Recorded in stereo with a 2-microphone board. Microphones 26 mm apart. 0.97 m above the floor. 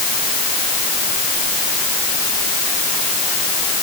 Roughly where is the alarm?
I don't hear an alarm.